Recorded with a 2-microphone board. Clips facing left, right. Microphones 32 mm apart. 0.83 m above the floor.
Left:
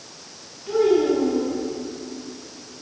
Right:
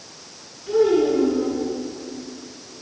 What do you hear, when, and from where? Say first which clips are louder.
0.7 s a child speaking: right 1 dB; 40° left (ahead or behind), 5 m